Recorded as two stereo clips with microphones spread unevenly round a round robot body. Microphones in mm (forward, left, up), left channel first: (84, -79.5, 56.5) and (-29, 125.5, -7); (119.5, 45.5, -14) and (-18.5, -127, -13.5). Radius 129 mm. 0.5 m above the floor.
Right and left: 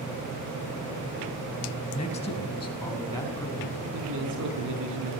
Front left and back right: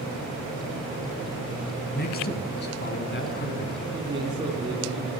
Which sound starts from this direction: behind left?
A man speaking, at 3.9 s.